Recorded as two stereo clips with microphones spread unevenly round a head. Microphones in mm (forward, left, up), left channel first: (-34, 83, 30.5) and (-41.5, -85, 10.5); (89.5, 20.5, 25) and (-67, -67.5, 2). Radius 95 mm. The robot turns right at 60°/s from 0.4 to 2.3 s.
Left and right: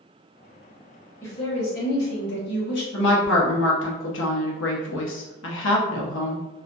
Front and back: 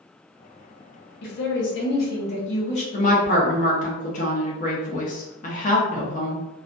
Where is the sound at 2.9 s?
80° left, 0.7 m.